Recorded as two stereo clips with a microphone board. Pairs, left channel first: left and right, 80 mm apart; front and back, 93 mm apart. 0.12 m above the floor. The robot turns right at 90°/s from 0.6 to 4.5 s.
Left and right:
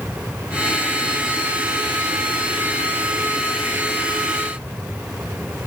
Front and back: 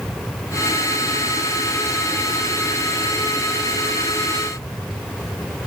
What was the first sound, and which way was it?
Only background noise.